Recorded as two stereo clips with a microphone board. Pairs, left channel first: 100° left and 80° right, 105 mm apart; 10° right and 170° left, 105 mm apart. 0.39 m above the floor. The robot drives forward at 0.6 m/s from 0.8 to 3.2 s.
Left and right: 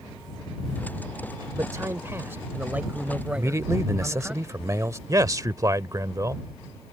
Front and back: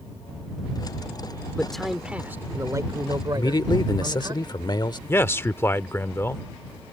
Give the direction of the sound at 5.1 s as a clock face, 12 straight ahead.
2 o'clock.